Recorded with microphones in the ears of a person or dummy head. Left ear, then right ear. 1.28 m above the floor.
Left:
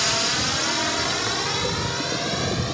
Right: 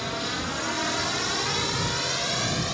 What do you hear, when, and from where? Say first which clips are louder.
0.0 s a drone: left 8 dB; 30° left (ahead or behind); by 2.7 s 10° right (ahead or behind)